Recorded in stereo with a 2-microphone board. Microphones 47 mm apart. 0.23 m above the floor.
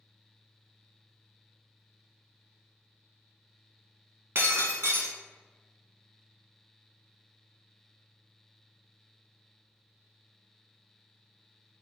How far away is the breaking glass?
About 1.0 m.